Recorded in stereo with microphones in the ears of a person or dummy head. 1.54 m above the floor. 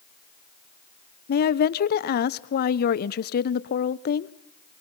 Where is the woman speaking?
50° left (ahead or behind), 1.0 m.